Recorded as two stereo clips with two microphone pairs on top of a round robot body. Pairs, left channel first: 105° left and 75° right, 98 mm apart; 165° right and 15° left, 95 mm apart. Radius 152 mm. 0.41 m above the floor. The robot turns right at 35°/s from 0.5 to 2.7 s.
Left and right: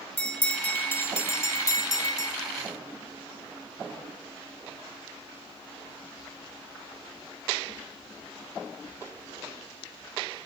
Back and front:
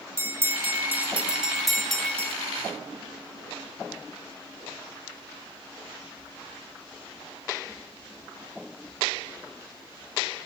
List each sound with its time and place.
0.2 s a bell: 50° left, 0.8 m; by 2.4 s 115° left, 0.8 m